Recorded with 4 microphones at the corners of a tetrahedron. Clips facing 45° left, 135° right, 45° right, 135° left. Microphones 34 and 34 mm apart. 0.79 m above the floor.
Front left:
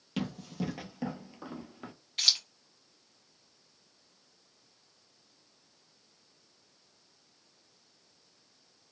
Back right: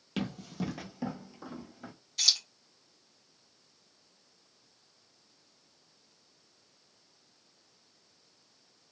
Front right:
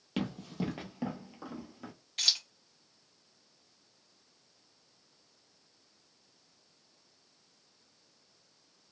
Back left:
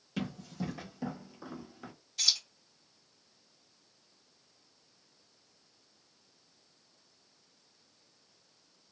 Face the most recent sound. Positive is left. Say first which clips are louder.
# front left 1 dB, front right 1 dB
turn(degrees=0)